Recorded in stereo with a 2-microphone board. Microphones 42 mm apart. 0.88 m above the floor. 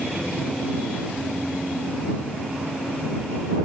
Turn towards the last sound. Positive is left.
No sound to turn to.